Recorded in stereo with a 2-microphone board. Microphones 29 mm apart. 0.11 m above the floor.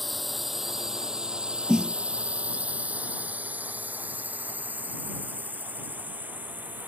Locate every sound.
0.0 s a drone: centre (ahead or behind); by 6.9 s 80° right
1.7 s a snare drum: 30° right (ahead or behind)